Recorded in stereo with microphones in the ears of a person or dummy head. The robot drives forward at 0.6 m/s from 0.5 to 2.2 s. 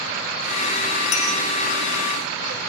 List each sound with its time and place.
1.1 s a clink: 40° left (ahead or behind), 2.5 m